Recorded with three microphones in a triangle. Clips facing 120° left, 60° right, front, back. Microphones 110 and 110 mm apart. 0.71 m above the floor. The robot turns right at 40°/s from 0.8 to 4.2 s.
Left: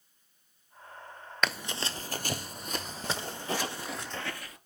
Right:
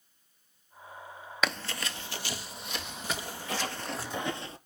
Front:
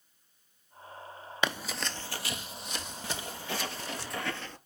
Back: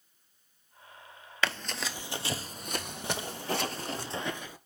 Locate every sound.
1.4 s running footsteps: 20° left, 0.7 m; by 4.0 s 145° right, 2.5 m
3.0 s footsteps: 125° left, 1.1 m; by 4.6 s 100° right, 0.9 m